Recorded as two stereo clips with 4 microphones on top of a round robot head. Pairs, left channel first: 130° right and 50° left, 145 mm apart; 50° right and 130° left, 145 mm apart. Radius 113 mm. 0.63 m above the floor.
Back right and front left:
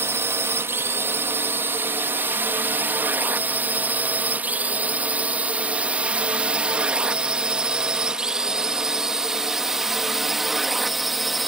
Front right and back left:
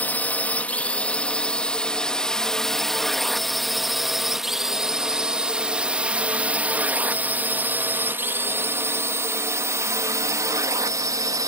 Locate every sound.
0.0 s a drone: 10° left; by 11.5 s 140° left